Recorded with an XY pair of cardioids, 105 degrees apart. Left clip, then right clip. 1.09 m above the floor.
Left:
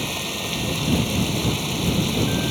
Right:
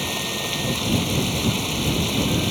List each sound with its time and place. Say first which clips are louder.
0.0 s running water: right 1 dB; 15° right